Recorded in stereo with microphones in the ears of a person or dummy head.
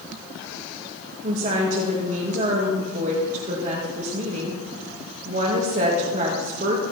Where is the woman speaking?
40° right (ahead or behind), 2 m.